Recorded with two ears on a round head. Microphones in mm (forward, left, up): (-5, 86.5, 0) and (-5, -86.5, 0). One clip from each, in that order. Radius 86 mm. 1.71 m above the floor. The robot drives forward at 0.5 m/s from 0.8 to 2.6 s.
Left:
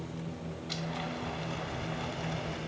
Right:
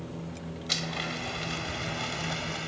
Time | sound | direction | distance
0.7 | a blender | 60° right (ahead or behind) | ?